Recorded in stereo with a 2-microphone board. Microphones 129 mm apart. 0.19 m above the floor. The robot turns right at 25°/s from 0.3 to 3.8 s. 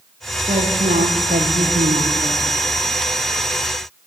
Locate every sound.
0.5 s a woman speaking: 120° right, 8 m; by 2.6 s 65° right, 8 m